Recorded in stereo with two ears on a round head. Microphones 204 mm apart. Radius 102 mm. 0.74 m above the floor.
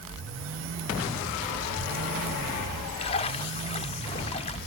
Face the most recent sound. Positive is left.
turn(degrees=25)  # may be behind; listen again after turning